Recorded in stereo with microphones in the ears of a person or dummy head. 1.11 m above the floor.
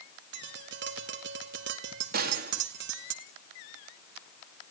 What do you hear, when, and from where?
0.3 s tapping: 55° right (ahead or behind), 1.5 m
2.1 s a gunshot: 45° right (ahead or behind), 2.5 m